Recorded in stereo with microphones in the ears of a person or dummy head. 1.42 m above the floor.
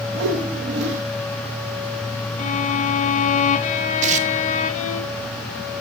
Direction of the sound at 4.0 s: 40° right (ahead or behind).